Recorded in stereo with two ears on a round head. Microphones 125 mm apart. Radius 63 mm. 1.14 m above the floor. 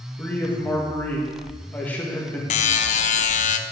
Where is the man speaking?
10° left (ahead or behind), 1.8 m.